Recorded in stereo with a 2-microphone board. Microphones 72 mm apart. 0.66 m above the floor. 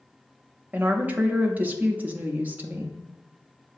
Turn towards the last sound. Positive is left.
turn(degrees=-25)  # may be behind; listen again after turning